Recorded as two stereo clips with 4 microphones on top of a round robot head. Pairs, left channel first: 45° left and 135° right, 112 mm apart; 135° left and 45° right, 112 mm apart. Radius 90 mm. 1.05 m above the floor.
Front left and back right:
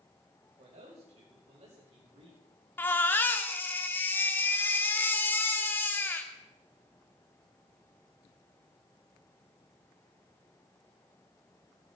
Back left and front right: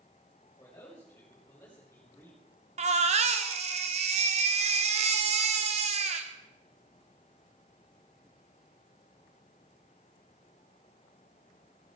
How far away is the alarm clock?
No alarm clock in this recording.